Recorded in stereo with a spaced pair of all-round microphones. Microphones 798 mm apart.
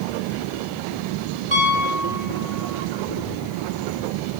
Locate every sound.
1.5 s a piano: 35° right (ahead or behind), 3 m